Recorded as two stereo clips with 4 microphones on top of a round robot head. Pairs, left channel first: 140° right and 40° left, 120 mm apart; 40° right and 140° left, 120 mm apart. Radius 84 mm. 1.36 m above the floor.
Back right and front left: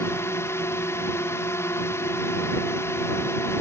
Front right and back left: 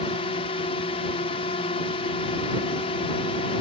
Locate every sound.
0.0 s a drone: 75° right